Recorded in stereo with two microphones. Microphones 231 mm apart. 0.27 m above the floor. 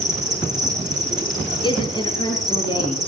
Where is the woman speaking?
20° left (ahead or behind), 4.5 m.